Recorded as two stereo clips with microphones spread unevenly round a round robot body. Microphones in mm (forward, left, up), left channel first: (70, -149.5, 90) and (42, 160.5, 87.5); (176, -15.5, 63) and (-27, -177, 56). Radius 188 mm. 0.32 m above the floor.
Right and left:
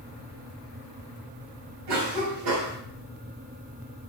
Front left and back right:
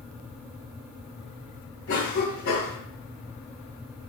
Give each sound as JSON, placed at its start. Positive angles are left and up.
{"t": 1.9, "sound": "a cough", "azimuth_deg": 80, "distance_m": 3.0}